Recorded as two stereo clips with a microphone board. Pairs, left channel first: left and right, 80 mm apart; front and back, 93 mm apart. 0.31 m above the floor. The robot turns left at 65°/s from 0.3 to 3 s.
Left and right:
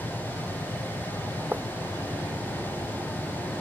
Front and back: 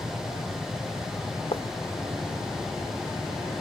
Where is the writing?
20° right; by 1.6 s 25° right.